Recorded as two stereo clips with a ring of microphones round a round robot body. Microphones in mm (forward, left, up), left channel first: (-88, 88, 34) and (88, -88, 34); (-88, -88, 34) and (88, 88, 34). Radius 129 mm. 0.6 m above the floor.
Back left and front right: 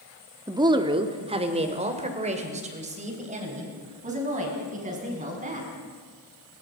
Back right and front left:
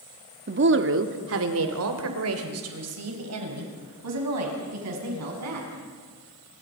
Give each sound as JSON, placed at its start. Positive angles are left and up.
{"t": 0.5, "sound": "a woman speaking", "azimuth_deg": 25, "distance_m": 1.4}